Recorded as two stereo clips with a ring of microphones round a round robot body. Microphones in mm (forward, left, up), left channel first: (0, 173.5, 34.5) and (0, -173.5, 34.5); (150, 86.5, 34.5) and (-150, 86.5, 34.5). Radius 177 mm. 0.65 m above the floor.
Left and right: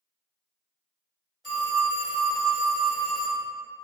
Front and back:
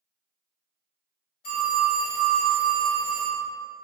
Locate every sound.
1.4 s a phone ringing: straight ahead, 1.5 m